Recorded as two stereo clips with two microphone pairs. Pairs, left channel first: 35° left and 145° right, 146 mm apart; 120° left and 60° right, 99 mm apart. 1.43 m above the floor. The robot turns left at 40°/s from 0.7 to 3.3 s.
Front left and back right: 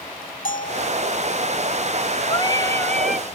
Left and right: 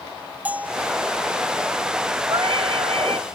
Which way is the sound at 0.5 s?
15° left.